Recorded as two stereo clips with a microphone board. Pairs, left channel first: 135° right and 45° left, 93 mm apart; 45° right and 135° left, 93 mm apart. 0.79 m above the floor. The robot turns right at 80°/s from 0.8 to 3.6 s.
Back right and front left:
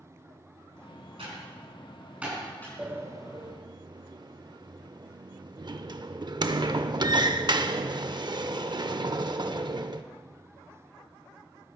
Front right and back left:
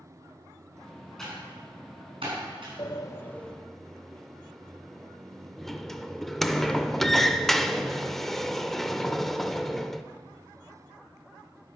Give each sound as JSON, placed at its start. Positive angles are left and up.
{"t": 1.2, "sound": "typing on a keyboard", "azimuth_deg": 40, "distance_m": 5.5}
{"t": 2.8, "sound": "a sliding door", "azimuth_deg": -25, "distance_m": 0.6}